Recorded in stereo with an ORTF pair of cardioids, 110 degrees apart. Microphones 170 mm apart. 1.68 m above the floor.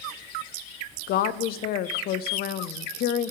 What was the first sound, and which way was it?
A woman speaking, 65° left.